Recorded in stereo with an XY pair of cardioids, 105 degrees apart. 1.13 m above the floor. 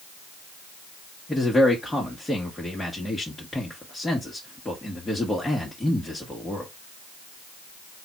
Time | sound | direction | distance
1.3 | a man speaking | 15° left | 1.5 m